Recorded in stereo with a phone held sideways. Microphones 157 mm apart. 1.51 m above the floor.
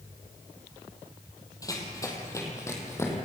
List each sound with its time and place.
1.6 s running footsteps: 20° left (ahead or behind), 3 m; by 3.1 s 15° left (ahead or behind), 4 m